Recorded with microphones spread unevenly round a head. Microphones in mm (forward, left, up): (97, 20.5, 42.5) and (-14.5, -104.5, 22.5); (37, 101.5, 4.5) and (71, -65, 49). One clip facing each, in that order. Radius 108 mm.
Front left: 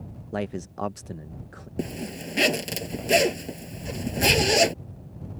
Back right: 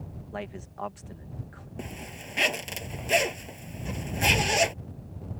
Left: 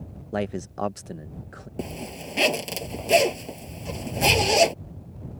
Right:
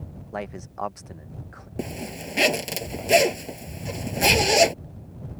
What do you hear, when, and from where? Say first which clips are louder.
0.3 s a man speaking: front left 8 dB, left 5 dB; 85° left
1.8 s a zipper: front left 10 dB, right 2 dB; 5° left